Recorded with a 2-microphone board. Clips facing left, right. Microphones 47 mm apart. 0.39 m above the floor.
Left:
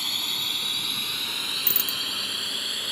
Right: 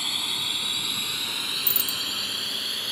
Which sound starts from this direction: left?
A bicycle bell, at 1.7 s.